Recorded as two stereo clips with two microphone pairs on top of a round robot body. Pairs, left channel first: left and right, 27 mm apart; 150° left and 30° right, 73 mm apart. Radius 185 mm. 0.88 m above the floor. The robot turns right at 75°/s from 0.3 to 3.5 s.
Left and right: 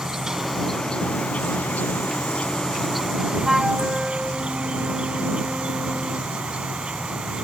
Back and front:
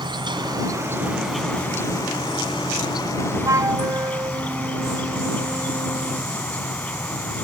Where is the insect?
20° right; by 7.5 s 140° right.